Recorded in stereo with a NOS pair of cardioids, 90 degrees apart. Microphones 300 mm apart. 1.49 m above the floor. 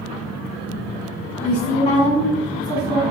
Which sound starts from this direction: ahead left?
A woman speaking, at 1.4 s.